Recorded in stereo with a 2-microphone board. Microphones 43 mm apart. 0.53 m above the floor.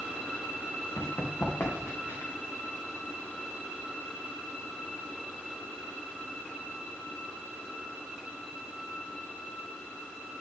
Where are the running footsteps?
80° left, 3.5 m; by 2.3 s 75° left (ahead or behind), 3.5 m.